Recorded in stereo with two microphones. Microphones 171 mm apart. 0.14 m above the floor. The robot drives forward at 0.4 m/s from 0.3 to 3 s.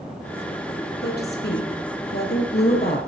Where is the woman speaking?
70° left (ahead or behind), 4.5 m.